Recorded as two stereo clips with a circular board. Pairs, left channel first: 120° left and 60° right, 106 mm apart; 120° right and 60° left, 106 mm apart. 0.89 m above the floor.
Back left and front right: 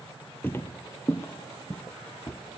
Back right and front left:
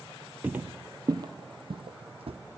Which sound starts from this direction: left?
Footsteps, at 0.4 s.